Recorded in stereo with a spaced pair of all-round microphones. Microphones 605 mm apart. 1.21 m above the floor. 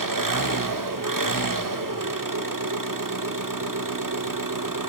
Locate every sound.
0.0 s an engine running: 30° right (ahead or behind), 1.1 m